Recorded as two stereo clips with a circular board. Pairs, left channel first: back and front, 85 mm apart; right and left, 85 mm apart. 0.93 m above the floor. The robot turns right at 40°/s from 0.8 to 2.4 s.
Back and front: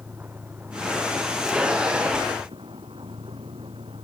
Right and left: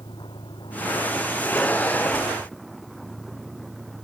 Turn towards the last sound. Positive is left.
turn(degrees=0)